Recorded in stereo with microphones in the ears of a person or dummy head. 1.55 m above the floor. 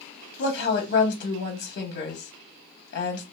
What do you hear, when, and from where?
0.4 s a woman speaking: 65° left (ahead or behind), 0.7 m